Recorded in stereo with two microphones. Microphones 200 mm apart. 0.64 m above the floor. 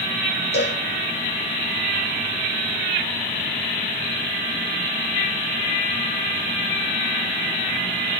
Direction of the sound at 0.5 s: 65° left (ahead or behind).